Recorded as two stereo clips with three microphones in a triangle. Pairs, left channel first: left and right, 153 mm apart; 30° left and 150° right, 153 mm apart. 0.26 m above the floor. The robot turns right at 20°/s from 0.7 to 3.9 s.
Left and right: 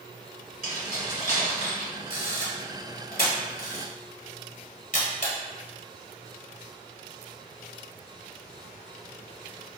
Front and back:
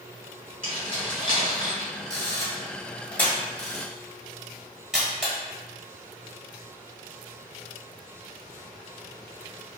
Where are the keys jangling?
65° left, 1.4 m; by 1.9 s 90° left, 1.4 m.